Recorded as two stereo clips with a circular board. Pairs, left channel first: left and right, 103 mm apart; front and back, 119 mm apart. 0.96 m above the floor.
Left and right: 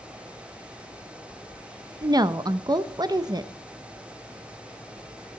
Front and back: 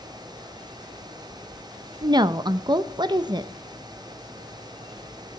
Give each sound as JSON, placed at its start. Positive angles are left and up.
{"t": 2.0, "sound": "a woman speaking", "azimuth_deg": -135, "distance_m": 0.5}